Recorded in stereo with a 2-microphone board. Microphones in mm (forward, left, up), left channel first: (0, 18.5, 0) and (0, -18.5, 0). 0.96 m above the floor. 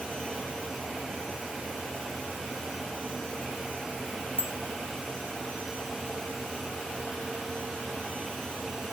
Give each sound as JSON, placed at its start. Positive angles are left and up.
{"t": 4.4, "sound": "a bicycle bell", "side_deg": -80, "distance_m": 4.0}